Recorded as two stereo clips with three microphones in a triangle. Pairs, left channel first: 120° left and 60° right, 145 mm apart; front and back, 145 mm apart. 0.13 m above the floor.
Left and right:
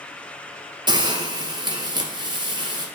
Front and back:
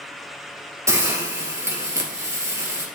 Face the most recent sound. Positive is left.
turn(degrees=-115)